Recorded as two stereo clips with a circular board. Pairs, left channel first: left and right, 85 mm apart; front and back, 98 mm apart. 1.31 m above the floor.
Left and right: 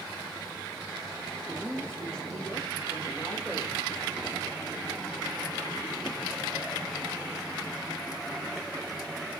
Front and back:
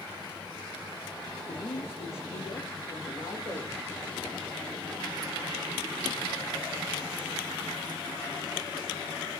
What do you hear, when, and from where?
1.5 s a man speaking: 10° left, 0.7 m; by 3.8 s 5° left, 2 m